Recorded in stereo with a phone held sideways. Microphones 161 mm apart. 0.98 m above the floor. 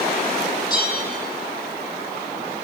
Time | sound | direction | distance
0.7 | a bell | 25° left (ahead or behind) | 3 m